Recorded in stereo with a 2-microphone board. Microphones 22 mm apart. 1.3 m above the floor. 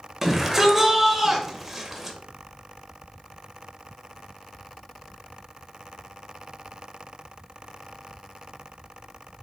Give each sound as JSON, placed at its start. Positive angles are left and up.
{"t": 0.2, "sound": "a shout", "side_deg": -10, "distance_m": 1.1}